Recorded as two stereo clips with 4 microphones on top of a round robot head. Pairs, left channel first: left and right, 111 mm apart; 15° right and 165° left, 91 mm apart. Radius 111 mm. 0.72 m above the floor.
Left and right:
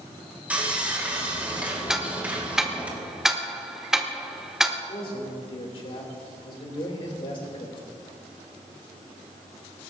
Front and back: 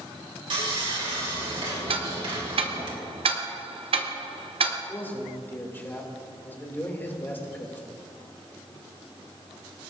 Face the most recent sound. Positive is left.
turn(degrees=55)